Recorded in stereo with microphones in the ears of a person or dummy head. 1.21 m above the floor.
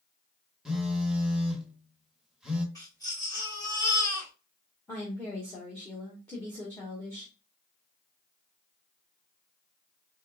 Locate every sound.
0.7 s a phone buzzing: centre (ahead or behind), 1.0 m
2.8 s a baby crying: 20° left (ahead or behind), 2 m
4.9 s a woman speaking: 10° left (ahead or behind), 1.0 m